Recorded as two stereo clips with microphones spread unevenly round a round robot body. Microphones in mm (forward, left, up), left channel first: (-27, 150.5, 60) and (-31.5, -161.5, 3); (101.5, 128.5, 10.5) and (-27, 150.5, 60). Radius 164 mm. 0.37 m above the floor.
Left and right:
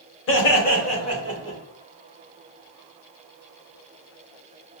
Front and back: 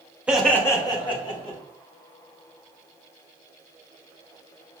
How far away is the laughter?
About 1.1 m.